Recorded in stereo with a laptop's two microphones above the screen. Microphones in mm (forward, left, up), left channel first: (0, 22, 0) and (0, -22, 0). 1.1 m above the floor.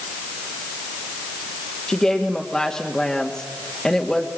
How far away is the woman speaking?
About 2 m.